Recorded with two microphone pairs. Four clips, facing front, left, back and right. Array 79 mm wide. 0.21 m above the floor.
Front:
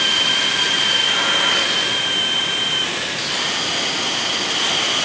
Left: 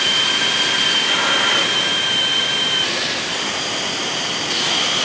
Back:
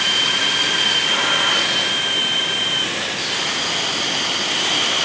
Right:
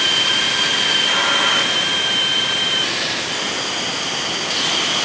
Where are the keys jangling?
No keys jangling in this recording.